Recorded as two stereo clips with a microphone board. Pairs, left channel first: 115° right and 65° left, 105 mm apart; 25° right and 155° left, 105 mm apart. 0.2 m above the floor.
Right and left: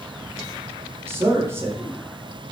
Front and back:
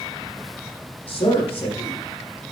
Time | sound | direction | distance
1.1 | a man speaking | straight ahead | 7.5 m